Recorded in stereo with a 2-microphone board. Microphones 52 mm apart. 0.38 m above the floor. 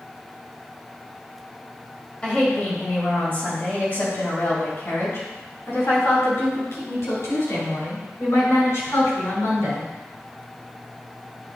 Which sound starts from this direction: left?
A woman speaking, at 2.2 s.